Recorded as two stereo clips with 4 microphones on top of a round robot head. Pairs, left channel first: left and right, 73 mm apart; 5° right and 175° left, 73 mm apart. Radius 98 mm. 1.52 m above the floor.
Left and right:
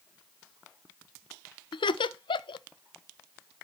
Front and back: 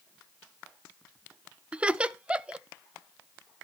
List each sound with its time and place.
1.7 s laughter: 100° left, 0.5 m